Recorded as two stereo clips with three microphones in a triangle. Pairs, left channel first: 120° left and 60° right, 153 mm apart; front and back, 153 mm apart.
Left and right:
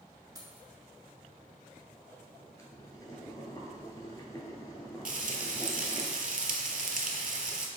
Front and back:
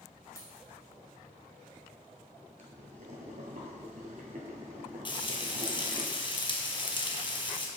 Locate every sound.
0.3 s keys jangling: 40° right, 0.9 m
2.6 s boiling: straight behind, 0.9 m
5.0 s frying: 50° right, 0.5 m